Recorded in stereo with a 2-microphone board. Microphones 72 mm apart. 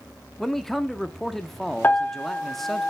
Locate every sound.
0.4 s a man speaking: 5° left (ahead or behind), 0.6 m
1.8 s a piano: 25° left (ahead or behind), 1.1 m